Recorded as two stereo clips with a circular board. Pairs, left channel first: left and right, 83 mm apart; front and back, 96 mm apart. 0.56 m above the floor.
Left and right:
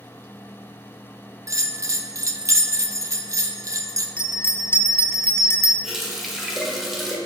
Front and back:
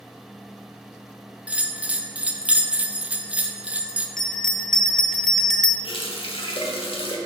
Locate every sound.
1.5 s a bell: 110° right, 0.5 m
4.2 s a bell: 85° left, 0.6 m
5.8 s a running tap: straight ahead, 1.2 m